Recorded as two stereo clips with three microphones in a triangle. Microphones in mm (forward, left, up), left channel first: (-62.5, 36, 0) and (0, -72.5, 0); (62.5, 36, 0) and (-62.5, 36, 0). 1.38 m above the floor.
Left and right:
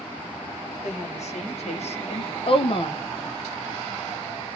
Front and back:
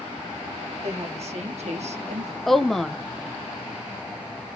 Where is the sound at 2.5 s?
85° left, 0.5 m.